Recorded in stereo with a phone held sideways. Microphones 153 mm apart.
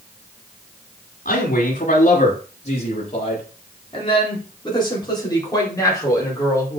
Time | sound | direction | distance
1.2 | a man speaking | 65° left (ahead or behind) | 3.5 m